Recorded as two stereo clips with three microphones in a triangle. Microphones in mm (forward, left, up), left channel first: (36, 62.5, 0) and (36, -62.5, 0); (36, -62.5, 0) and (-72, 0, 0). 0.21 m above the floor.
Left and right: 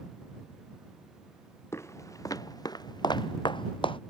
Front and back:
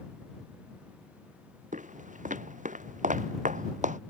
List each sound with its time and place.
1.7 s footsteps: 160° left; by 4.0 s 140° left